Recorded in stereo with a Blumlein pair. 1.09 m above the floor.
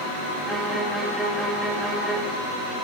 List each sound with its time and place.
0.5 s a violin: straight ahead, 1.8 m